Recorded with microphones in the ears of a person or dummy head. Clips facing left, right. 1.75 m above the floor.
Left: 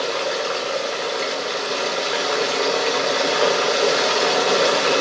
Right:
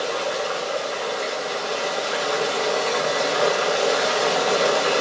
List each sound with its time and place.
0.0 s running water: 30° left (ahead or behind), 0.9 m